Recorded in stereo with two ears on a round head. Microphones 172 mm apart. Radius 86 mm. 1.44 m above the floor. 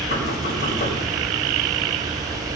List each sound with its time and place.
0.1 s knocking: 40° left (ahead or behind), 6 m